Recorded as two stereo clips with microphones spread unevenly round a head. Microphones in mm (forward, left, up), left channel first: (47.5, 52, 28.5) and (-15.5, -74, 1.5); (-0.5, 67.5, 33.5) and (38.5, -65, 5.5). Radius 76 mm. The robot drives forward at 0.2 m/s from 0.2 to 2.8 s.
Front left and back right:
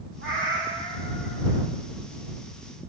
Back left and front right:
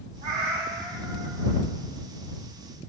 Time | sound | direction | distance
0.2 | a cat meowing | 130° right | 1.7 m